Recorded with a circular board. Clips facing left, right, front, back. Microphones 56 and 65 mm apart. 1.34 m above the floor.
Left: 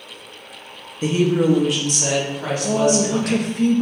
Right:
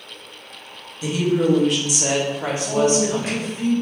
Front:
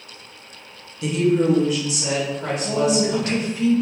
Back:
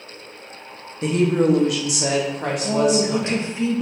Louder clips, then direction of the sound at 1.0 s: Left 2 dB, even; 130° left.